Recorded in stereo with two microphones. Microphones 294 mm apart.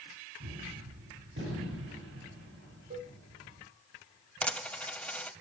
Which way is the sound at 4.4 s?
5° left (ahead or behind).